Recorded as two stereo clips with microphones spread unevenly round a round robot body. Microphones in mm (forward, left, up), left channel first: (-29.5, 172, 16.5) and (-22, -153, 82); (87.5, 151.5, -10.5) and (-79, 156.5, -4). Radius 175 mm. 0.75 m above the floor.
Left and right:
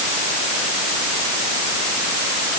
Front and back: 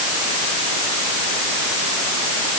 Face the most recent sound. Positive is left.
No sound to turn to.